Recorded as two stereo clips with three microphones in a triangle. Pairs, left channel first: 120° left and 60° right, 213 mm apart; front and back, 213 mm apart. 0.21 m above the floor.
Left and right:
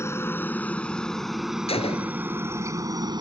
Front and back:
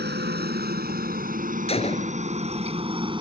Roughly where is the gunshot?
Ahead left.